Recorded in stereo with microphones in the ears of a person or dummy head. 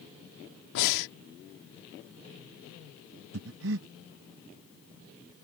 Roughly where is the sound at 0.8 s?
Left.